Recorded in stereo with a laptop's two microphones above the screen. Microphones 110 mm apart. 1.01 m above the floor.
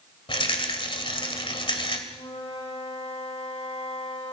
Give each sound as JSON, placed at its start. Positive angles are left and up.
{"t": 0.3, "sound": "a rattle", "side_deg": 55, "distance_m": 2.0}
{"t": 2.1, "sound": "a flute", "side_deg": 70, "distance_m": 8.5}